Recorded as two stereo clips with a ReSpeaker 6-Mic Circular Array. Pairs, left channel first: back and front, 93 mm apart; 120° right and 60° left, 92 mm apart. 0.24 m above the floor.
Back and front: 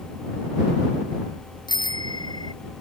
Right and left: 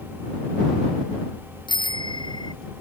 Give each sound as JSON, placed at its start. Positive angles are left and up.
{"t": 1.7, "sound": "a bicycle bell", "azimuth_deg": -145}